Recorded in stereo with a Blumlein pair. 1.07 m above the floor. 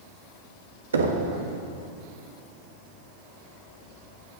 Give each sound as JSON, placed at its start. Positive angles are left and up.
{"t": 0.9, "sound": "knocking", "azimuth_deg": -70, "distance_m": 1.4}